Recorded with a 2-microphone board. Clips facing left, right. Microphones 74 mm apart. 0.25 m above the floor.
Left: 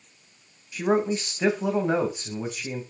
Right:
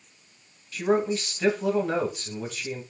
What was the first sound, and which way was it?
A man speaking, 15° left (ahead or behind).